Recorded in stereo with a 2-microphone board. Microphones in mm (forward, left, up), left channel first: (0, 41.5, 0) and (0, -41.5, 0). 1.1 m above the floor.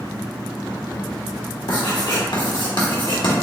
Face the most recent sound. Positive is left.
turn(degrees=65)  # may be behind; listen again after turning